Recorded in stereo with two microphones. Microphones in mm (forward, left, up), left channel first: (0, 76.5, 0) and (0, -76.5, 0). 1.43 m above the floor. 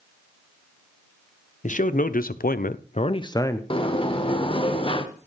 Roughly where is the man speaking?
Left.